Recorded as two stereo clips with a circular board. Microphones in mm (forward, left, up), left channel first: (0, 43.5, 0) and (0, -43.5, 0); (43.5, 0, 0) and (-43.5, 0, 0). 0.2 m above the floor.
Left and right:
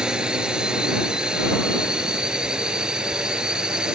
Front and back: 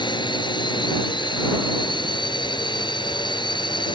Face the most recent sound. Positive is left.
turn(degrees=-10)